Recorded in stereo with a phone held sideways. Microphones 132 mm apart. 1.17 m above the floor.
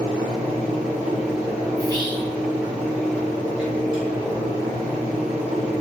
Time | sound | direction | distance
0.0 | a fan | 10° right (ahead or behind) | 0.9 m
1.8 | whispering | 30° right (ahead or behind) | 0.7 m